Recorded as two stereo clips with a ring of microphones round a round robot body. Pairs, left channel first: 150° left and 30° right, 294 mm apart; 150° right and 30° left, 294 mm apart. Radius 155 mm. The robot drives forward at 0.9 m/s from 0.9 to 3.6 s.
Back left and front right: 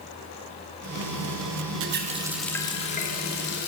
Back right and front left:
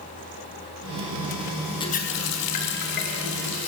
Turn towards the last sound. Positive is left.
turn(degrees=-155)